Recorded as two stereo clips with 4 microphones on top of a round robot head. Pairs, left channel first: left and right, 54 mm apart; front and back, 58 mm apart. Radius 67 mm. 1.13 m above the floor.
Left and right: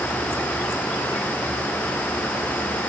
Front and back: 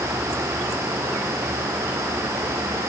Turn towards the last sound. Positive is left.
No sound to turn to.